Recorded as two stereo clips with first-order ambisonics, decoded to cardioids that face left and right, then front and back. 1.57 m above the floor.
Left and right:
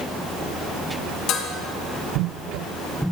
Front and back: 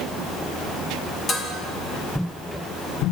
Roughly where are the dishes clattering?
Left.